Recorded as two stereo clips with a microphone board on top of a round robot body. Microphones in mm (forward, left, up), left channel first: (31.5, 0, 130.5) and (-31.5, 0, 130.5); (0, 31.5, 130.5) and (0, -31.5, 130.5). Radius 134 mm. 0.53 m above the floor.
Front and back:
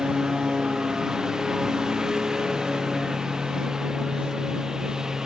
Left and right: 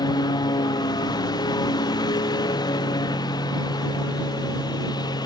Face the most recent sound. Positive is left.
turn(degrees=100)